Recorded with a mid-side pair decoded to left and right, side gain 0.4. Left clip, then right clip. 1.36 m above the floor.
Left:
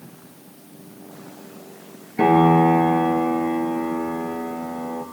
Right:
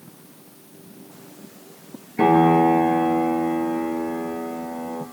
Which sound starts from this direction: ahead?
A piano, at 2.2 s.